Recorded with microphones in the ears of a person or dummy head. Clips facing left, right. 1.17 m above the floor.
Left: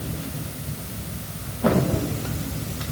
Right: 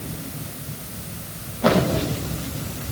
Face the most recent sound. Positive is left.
No sound to turn to.